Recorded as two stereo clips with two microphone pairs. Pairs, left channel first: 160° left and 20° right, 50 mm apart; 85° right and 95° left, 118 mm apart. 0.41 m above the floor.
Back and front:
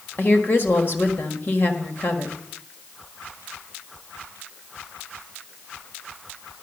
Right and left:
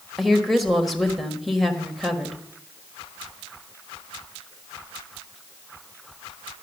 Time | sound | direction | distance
0.2 | a woman speaking | 175° right | 1.5 m